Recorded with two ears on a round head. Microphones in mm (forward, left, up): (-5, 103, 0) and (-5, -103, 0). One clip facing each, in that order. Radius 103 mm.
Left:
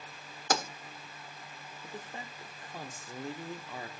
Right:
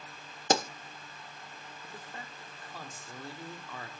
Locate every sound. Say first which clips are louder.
0.5 s a pop: right 4 dB; 25° right (ahead or behind), 1.0 m
1.8 s a man speaking: left 4 dB; 15° left (ahead or behind), 1.2 m